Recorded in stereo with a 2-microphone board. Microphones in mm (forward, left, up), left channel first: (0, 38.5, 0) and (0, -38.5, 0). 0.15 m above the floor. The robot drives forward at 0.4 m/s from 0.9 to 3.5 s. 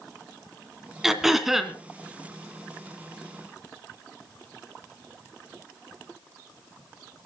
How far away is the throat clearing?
About 1.5 m.